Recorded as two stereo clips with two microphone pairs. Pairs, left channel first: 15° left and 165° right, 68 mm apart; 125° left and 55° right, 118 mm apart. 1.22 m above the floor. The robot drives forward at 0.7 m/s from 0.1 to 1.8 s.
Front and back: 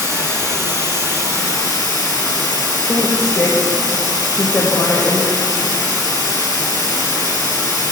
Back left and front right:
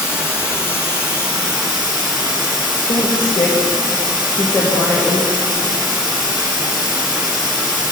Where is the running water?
5° left, 4 m.